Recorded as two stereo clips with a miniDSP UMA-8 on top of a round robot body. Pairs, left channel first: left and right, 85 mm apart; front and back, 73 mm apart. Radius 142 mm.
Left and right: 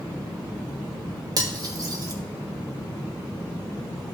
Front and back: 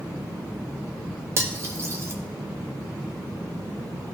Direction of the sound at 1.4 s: 130° right.